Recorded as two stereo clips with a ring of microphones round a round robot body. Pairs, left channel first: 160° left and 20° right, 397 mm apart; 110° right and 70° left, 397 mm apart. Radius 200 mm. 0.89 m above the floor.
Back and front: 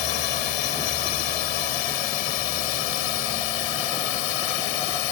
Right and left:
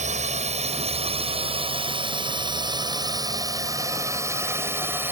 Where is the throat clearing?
I don't hear throat clearing.